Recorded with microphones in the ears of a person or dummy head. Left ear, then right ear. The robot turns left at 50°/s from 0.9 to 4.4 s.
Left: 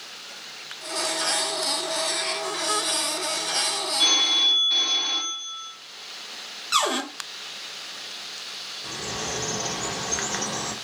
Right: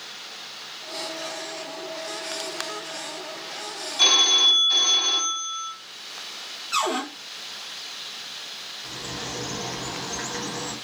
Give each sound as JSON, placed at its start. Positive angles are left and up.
{"t": 4.0, "sound": "a phone ringing", "side_deg": -55, "distance_m": 1.2}
{"t": 6.7, "sound": "a cupboard door", "side_deg": 25, "distance_m": 0.8}
{"t": 8.8, "sound": "a bird", "side_deg": 45, "distance_m": 0.6}